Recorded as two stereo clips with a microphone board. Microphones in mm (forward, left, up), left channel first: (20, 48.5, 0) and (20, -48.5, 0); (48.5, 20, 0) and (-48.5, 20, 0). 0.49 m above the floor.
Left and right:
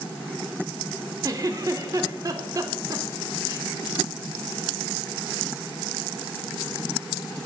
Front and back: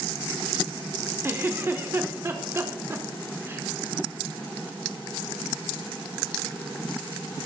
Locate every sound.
1.2 s a giggle: 125° right, 0.7 m